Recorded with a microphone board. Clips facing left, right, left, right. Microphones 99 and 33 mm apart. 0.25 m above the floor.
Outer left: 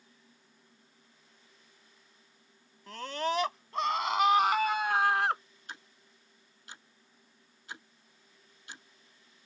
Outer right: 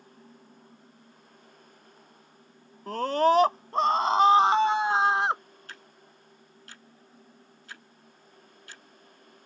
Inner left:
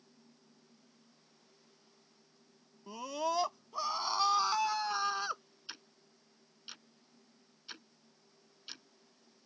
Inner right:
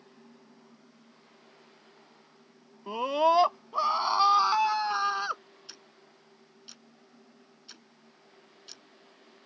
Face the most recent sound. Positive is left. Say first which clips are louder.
# outer left 2 dB, inner left 6 dB
turn(degrees=20)  # may be behind; listen again after turning